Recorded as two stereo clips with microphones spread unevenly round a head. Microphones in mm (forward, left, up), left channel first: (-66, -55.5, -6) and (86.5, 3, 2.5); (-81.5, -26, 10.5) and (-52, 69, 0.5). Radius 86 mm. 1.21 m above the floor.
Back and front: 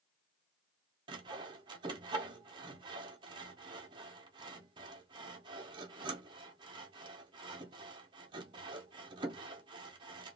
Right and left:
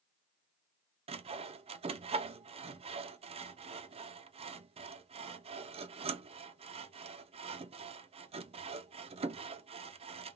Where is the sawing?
90° left, 0.5 m.